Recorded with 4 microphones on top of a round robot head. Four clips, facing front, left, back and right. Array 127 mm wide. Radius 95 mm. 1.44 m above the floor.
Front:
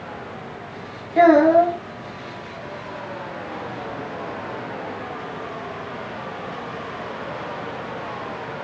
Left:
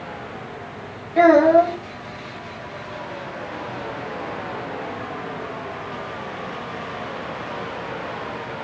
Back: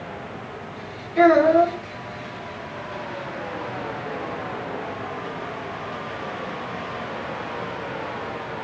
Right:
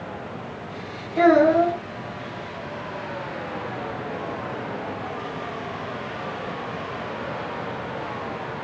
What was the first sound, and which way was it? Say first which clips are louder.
A child speaking: left 3 dB, front 2 dB; 40° left.